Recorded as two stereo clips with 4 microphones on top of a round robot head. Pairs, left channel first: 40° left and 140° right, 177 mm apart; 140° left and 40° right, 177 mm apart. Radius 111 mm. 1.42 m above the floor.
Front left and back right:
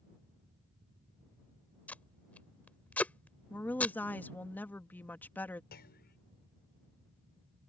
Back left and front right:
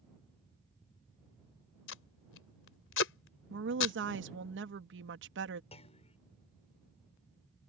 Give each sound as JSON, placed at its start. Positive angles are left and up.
{"t": 1.9, "sound": "tape being pulled", "azimuth_deg": 125}
{"t": 3.5, "sound": "a woman speaking", "azimuth_deg": -40}
{"t": 5.7, "sound": "a clunk", "azimuth_deg": 80}